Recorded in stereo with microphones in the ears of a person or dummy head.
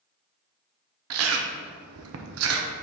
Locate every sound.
1.1 s chewing: 75° right (ahead or behind), 0.7 m